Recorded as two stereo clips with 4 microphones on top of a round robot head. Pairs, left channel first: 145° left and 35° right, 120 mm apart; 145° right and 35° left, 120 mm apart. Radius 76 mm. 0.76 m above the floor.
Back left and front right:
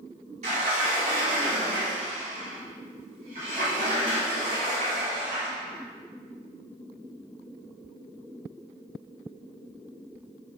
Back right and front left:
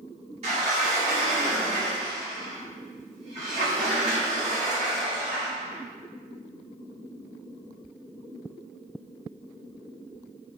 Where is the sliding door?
5° right, 1.0 m.